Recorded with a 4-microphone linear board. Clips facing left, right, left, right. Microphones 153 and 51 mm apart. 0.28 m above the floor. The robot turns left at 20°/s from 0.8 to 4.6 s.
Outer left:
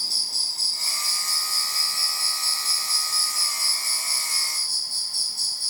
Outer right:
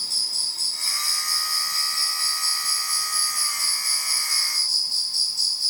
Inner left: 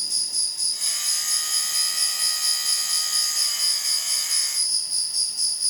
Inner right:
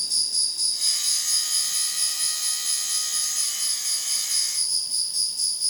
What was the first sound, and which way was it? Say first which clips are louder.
An insect: outer left 1 dB, inner right 1 dB; 140° left.